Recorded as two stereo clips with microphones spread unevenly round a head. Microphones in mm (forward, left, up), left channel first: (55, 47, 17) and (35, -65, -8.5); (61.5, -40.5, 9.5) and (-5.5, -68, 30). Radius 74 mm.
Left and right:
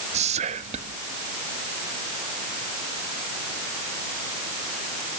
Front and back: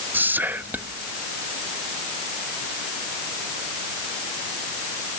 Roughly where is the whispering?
Right.